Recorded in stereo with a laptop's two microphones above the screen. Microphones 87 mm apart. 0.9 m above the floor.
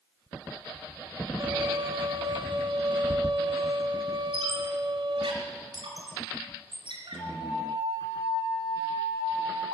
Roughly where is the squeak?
Right.